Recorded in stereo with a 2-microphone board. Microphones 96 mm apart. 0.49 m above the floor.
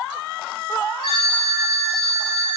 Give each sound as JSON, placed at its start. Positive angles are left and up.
{"t": 1.0, "sound": "a phone ringing", "side_deg": 75, "distance_m": 1.2}